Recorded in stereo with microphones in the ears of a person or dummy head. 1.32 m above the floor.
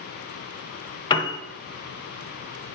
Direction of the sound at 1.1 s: 30° left (ahead or behind).